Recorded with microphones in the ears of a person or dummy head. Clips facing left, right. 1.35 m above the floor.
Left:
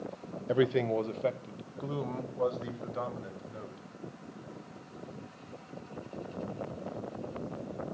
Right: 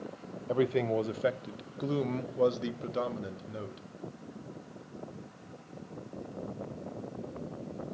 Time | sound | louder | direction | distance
0.5 | a man speaking | left 1 dB | 15° left (ahead or behind) | 0.6 m